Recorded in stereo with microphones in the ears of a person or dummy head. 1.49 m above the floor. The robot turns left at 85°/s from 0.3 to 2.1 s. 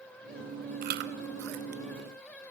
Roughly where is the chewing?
Right.